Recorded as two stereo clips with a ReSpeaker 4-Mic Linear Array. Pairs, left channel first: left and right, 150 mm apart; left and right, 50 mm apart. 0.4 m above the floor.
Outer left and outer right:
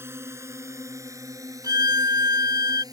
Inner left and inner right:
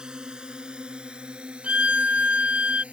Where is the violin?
30° right (ahead or behind).